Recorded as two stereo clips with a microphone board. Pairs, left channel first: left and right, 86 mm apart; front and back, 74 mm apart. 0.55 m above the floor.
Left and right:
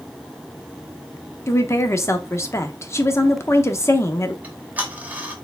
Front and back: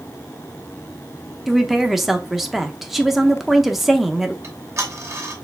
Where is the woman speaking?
95° left, 0.7 m.